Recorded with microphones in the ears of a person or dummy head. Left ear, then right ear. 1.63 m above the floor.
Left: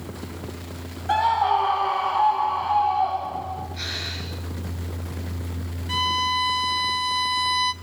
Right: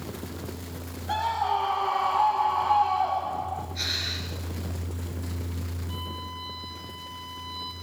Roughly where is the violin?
Left.